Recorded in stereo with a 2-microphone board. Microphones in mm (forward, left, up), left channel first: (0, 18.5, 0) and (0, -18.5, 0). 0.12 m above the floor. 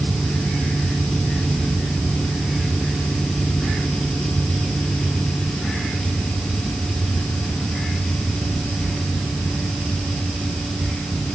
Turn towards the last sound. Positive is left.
No sound to turn to.